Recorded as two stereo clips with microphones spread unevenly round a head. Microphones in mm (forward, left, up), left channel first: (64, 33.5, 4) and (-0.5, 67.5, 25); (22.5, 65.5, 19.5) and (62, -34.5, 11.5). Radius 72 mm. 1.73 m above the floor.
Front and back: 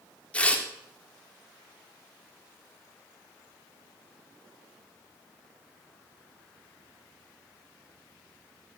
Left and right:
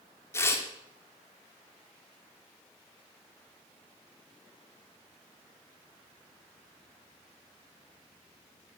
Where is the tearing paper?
50° left, 3.5 m.